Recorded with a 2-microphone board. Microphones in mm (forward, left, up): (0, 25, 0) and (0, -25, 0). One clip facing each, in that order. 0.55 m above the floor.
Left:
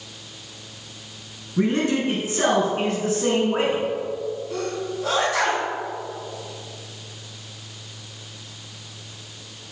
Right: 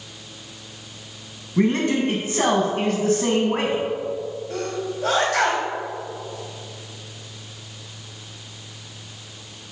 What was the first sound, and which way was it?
A man speaking, 60° right (ahead or behind).